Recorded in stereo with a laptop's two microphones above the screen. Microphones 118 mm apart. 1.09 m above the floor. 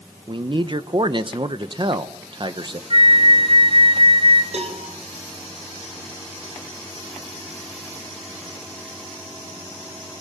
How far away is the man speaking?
About 1.0 m.